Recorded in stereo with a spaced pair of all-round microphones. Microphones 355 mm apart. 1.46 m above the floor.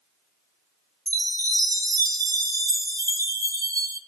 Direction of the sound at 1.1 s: 10° right (ahead or behind).